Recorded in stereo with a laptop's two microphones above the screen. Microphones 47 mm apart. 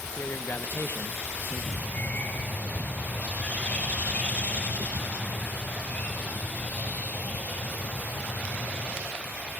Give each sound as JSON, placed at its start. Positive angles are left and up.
{"t": 0.2, "sound": "a man speaking", "side_deg": 50, "distance_m": 0.7}
{"t": 1.8, "sound": "a bird", "side_deg": 30, "distance_m": 7.0}